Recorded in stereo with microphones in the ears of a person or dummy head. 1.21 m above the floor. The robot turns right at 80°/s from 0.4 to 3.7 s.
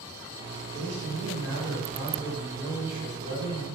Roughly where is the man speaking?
Behind right.